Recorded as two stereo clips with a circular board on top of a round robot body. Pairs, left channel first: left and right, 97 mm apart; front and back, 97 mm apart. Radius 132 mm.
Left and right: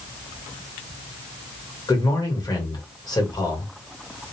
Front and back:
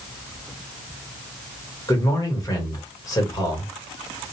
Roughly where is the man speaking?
Ahead left.